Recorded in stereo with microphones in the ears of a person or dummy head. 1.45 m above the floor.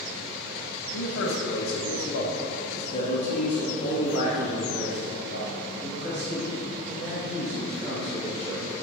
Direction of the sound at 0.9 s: 75° left (ahead or behind).